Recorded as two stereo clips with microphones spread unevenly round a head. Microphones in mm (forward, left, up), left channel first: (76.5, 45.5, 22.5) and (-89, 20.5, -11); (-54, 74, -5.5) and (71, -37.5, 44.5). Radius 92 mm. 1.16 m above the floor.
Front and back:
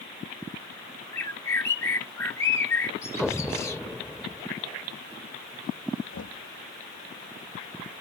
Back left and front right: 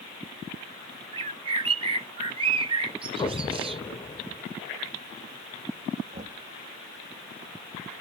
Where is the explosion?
65° left.